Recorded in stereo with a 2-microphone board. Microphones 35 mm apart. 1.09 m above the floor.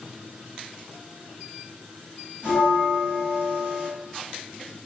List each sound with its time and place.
2.4 s a bell: 60° left (ahead or behind), 1.7 m